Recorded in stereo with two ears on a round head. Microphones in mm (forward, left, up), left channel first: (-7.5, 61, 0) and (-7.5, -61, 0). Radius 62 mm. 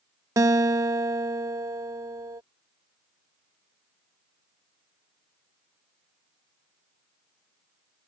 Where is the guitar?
20° right (ahead or behind).